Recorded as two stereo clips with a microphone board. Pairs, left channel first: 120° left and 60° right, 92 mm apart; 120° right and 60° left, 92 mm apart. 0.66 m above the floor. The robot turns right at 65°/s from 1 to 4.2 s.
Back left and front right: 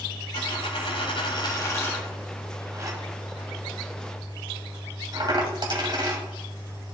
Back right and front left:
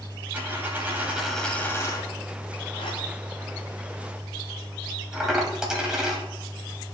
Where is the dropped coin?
130° left, 1.4 m; by 6.2 s 25° right, 1.4 m.